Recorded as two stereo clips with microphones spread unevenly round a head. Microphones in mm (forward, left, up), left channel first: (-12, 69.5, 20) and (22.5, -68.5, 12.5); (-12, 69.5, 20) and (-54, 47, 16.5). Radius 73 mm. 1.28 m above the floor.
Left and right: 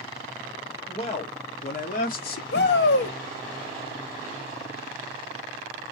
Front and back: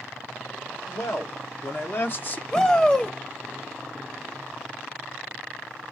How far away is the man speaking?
About 1.9 m.